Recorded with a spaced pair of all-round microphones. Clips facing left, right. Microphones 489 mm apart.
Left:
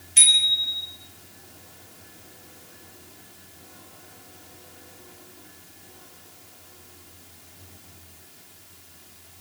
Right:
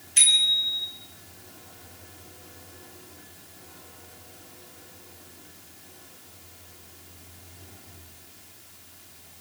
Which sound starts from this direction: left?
A bicycle bell, at 0.2 s.